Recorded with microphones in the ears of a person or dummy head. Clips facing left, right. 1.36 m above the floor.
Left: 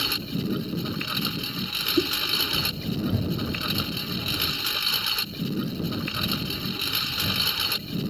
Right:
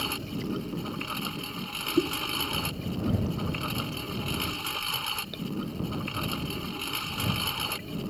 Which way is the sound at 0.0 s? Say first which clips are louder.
Left 3 dB; 20° left (ahead or behind).